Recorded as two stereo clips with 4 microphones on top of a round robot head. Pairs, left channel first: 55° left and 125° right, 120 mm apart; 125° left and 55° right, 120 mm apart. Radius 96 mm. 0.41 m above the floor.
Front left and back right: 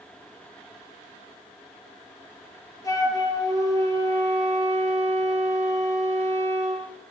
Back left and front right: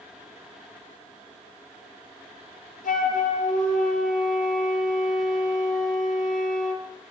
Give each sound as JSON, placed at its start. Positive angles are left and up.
{"t": 2.8, "sound": "a flute", "azimuth_deg": 120, "distance_m": 9.0}